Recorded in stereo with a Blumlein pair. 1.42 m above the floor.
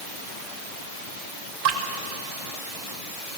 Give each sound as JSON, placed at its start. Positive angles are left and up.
{"t": 1.6, "sound": "dripping", "azimuth_deg": -50, "distance_m": 1.9}